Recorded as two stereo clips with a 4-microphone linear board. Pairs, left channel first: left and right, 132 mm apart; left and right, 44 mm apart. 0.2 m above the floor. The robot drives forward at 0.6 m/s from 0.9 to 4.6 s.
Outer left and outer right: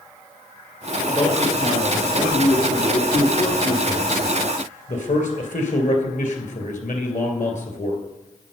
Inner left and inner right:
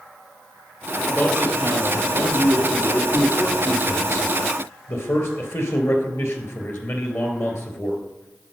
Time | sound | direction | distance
1.1 | a man speaking | 40° left (ahead or behind) | 4 m